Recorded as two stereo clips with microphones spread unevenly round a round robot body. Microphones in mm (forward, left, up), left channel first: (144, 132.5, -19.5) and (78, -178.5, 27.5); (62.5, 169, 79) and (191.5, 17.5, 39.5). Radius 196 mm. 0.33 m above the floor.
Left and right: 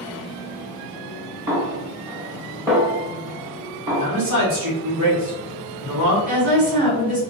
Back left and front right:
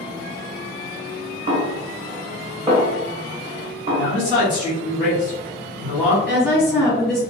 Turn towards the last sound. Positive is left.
turn(degrees=-135)